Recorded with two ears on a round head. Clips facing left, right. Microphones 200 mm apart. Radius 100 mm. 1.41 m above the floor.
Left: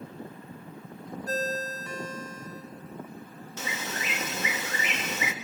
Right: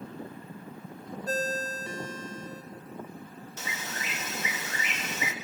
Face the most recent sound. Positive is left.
turn(degrees=60)  # may be behind; listen again after turning